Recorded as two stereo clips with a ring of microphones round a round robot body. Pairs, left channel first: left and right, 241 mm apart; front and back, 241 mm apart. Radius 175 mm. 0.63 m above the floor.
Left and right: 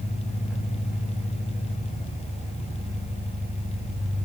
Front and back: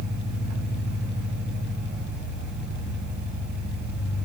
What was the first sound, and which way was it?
An engine running, straight behind.